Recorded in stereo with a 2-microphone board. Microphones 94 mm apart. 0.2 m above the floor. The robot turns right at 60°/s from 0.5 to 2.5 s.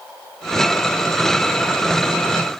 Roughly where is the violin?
I don't hear a violin.